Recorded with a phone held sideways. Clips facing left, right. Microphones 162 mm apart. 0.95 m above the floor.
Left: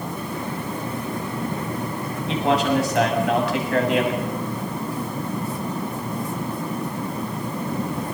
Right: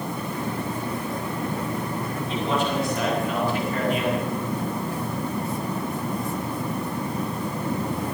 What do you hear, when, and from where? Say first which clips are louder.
2.3 s a man speaking: left 6 dB; 80° left, 7.5 m